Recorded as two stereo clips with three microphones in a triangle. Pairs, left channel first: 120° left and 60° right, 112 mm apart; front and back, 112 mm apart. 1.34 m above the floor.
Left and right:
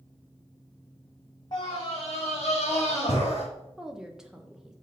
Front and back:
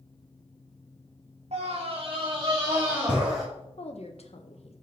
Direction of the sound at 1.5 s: 165° left.